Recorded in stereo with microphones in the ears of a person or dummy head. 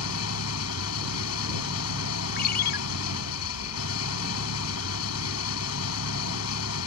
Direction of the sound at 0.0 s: 80° left.